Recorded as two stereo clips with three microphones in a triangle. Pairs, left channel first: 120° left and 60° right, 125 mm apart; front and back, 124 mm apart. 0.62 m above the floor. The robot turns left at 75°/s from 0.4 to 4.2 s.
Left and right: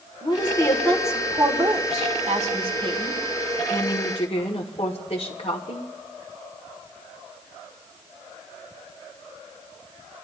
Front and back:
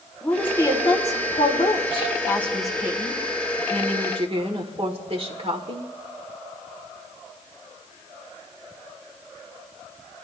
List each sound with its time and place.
0.2 s a woman speaking: 75° left, 1.9 m; by 5.9 s 150° left, 1.9 m